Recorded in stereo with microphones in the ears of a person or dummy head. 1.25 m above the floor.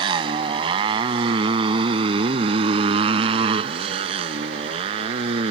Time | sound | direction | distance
0.0 | a motorcycle | 25° right (ahead or behind) | ?